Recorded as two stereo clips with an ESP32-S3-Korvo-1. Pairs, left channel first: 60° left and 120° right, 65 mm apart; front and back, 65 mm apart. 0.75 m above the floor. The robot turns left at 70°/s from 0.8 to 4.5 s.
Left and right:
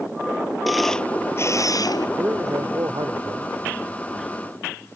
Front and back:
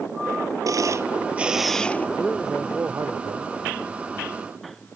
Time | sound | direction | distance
0.7 | a camera shutter | 150° left | ?
2.2 | a man speaking | 75° right | ?